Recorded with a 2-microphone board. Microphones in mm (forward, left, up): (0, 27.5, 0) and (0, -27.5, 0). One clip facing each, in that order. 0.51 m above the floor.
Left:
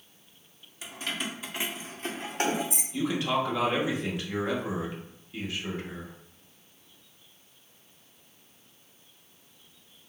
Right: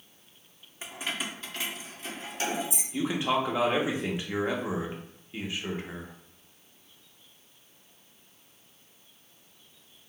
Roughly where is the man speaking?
Centre.